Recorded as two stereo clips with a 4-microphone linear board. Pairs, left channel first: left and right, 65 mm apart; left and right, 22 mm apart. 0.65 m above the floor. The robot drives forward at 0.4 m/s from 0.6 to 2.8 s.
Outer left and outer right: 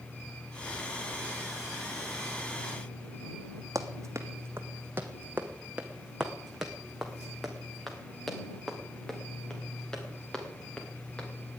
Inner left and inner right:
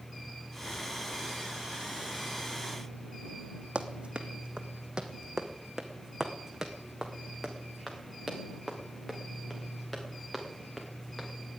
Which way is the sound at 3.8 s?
55° right (ahead or behind).